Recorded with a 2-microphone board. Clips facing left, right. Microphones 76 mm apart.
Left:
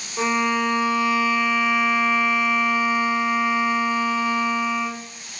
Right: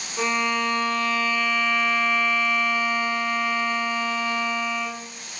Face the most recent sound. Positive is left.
turn(degrees=15)  # may be behind; listen again after turning